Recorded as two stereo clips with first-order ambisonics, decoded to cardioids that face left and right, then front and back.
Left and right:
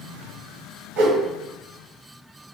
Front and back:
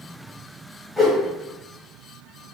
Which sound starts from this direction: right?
A whoosh, at 1.0 s.